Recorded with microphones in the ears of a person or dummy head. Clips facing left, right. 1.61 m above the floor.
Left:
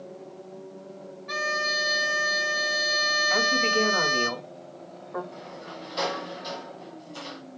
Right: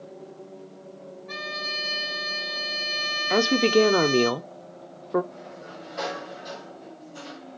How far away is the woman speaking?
About 0.8 m.